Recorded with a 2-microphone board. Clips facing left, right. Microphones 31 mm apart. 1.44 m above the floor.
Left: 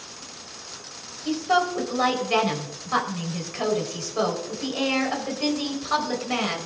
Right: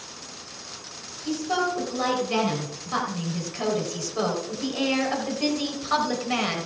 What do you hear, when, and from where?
1.2 s a woman speaking: 30° left (ahead or behind), 4.5 m; by 6.7 s 10° right (ahead or behind), 4.5 m